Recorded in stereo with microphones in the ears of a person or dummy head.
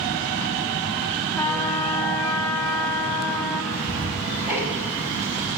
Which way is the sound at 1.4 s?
15° left (ahead or behind).